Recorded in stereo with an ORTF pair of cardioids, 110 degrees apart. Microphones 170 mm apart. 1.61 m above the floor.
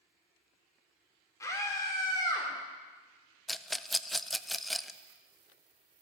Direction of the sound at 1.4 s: 20° left.